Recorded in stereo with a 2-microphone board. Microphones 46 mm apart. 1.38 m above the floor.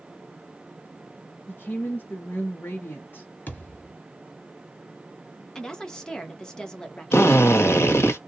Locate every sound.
1.5 s a woman speaking: 45° left (ahead or behind), 0.7 m
3.5 s a thud: 40° left (ahead or behind), 1.5 m
5.5 s a woman speaking: 15° left (ahead or behind), 0.9 m
7.1 s a drill: 70° left (ahead or behind), 0.9 m